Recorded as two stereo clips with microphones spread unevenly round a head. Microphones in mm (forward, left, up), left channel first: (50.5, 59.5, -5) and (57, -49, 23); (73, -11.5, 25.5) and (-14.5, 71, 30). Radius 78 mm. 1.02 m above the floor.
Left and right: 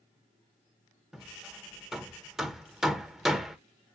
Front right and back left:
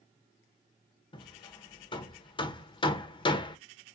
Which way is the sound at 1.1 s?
5° left.